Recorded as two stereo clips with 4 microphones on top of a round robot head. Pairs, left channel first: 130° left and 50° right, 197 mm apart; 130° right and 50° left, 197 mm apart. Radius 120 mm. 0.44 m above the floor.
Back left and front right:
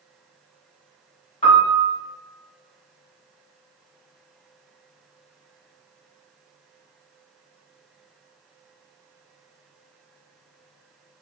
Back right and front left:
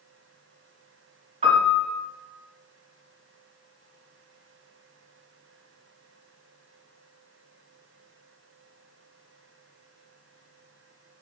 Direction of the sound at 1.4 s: 85° left.